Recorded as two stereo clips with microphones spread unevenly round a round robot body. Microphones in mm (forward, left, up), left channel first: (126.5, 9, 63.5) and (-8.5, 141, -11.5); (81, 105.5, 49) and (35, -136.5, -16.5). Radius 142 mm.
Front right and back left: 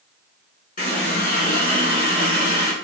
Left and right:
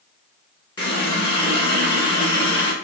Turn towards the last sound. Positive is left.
turn(degrees=5)